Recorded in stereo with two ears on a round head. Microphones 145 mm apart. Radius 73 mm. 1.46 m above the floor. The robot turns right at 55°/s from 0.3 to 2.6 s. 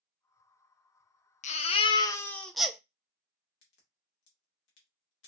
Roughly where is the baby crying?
Behind left.